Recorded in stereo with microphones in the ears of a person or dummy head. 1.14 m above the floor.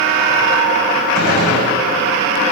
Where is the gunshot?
55° right (ahead or behind), 8 m.